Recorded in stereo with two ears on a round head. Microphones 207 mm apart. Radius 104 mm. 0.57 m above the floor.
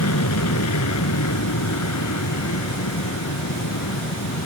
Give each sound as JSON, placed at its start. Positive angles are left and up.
{"t": 0.0, "sound": "an aircraft", "side_deg": 75}